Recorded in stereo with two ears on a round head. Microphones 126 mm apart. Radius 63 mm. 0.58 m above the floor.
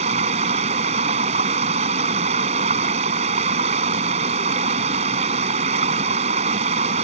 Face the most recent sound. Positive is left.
turn(degrees=-50)  # may be behind; listen again after turning